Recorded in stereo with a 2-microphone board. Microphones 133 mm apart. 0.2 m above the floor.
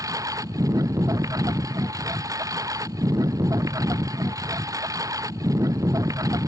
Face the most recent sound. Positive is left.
turn(degrees=-25)  # may be behind; listen again after turning